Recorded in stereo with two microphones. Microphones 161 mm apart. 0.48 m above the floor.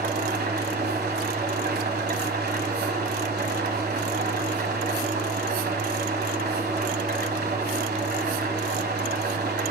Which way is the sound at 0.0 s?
85° right.